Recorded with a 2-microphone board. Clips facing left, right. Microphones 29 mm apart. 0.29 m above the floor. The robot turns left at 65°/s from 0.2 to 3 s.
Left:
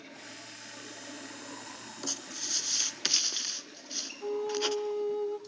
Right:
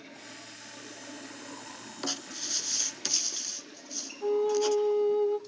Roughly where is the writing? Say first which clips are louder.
Right 3 dB; right.